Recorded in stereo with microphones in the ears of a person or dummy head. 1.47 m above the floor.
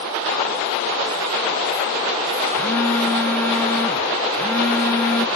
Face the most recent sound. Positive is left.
turn(degrees=10)  # may be behind; listen again after turning